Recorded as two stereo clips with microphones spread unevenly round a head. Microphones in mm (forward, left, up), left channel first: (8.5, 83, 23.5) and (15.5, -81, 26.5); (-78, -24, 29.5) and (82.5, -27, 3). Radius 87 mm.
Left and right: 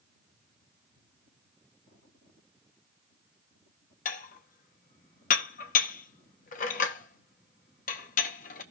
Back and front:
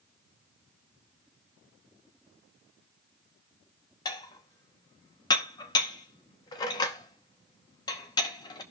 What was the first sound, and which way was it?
Dishes clattering, 125° left.